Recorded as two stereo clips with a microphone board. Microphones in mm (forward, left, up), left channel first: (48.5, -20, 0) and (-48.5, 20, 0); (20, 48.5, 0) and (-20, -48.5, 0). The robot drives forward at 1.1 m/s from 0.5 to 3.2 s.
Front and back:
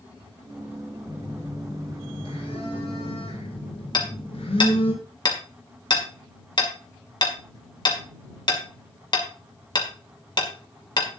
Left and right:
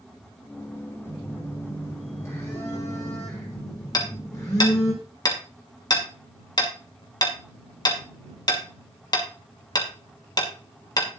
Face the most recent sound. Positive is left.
turn(degrees=20)